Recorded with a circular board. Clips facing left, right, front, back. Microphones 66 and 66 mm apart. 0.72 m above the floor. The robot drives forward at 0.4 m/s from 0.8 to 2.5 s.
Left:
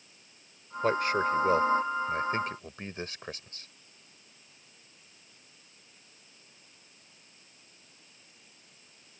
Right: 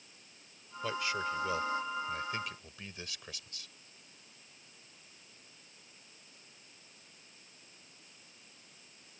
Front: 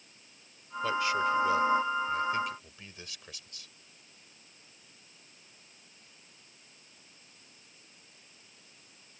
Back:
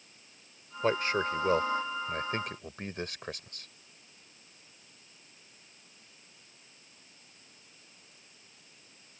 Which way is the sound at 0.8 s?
130° left.